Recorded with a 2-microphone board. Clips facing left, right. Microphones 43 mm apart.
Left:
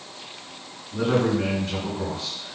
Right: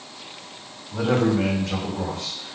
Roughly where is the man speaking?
Right.